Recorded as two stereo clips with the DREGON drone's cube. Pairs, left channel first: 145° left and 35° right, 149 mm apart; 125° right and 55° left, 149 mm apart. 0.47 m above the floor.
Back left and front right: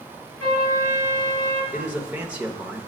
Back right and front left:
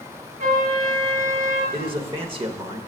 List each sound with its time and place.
0.4 s a trumpet: 80° left, 3 m
1.7 s a man speaking: 40° left, 0.9 m